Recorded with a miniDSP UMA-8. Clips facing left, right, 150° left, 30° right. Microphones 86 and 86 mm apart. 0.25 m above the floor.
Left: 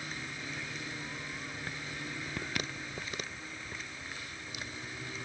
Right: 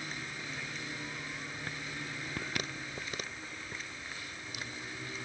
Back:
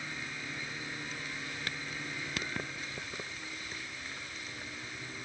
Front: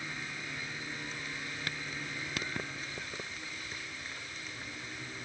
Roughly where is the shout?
I don't hear a shout.